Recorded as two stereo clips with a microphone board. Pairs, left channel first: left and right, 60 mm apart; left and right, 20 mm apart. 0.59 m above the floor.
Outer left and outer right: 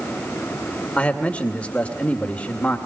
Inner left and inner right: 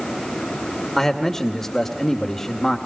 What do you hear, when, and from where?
1.0 s a man speaking: 20° left (ahead or behind), 2 m